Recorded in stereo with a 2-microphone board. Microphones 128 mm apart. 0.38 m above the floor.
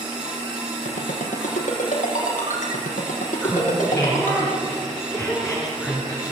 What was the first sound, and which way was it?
A ringtone, 85° left.